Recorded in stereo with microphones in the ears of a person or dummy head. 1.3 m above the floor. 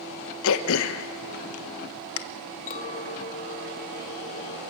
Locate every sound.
0.4 s throat clearing: 75° left (ahead or behind), 1.1 m
2.7 s a clink: 35° left (ahead or behind), 1.2 m